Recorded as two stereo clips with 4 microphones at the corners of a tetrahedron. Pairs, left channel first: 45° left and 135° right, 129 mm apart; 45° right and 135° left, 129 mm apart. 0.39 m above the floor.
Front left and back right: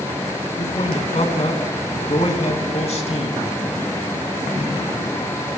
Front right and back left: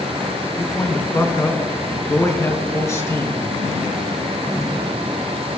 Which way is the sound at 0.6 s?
20° left.